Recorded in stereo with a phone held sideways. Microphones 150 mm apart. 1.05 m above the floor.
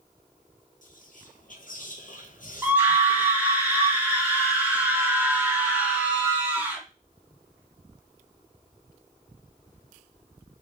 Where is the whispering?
65° left (ahead or behind), 0.6 m.